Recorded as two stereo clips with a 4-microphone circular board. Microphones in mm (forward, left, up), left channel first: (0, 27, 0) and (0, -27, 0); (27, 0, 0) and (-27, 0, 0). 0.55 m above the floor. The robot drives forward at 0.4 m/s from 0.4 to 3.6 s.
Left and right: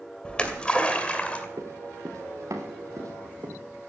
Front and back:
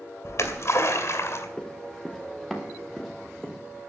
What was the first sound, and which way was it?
A splash, 20° left.